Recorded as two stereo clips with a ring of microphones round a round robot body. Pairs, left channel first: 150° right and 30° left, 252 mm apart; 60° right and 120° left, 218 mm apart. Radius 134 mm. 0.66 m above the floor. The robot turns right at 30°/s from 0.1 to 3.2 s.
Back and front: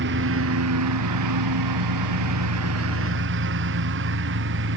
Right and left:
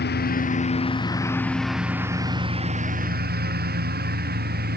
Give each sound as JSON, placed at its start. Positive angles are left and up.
{"t": 0.0, "sound": "a lawn mower", "azimuth_deg": -20}